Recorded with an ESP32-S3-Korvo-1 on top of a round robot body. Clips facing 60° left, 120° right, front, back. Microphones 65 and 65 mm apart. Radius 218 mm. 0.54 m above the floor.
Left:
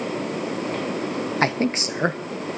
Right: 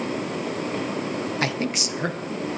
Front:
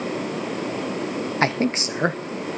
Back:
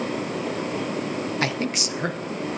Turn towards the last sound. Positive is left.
turn(degrees=30)